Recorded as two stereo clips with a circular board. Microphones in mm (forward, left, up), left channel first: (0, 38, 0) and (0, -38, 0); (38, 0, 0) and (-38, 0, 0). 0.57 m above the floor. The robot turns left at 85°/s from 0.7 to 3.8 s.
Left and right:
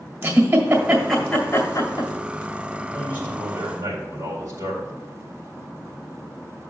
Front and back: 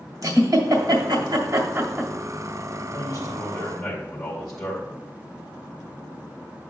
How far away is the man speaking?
About 2 m.